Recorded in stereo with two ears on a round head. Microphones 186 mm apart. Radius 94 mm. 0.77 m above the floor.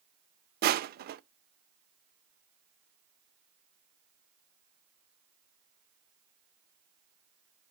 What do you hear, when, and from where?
0.6 s crushing: 45° right (ahead or behind), 0.6 m